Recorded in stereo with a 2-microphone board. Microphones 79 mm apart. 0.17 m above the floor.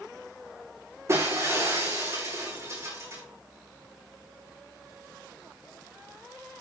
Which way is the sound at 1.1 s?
35° right (ahead or behind).